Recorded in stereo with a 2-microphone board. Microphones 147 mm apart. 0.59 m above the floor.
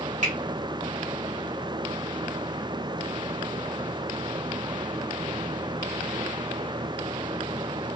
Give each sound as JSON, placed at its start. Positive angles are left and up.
{"t": 0.2, "sound": "a finger snap", "side_deg": -55, "distance_m": 1.6}